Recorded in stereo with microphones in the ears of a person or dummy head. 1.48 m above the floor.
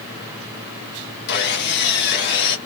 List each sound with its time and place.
1.3 s sawing: 55° left (ahead or behind), 1.3 m